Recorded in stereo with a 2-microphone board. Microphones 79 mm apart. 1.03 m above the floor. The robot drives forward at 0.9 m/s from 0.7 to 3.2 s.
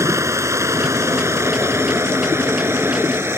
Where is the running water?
40° right (ahead or behind); by 3.4 s 30° right (ahead or behind).